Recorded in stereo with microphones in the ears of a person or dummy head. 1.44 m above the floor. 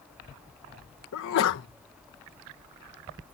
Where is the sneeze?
65° left (ahead or behind).